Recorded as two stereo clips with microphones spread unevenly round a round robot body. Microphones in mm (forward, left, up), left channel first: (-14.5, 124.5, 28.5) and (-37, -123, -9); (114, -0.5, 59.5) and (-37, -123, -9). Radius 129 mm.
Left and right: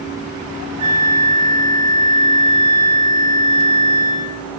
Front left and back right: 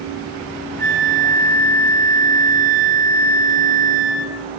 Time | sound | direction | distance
0.8 | a flute | 100° right | 7 m